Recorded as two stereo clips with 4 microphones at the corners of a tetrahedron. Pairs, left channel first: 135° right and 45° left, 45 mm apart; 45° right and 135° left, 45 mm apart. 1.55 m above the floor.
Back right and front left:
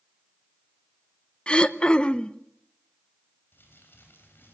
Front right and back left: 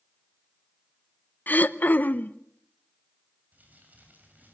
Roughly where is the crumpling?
Behind.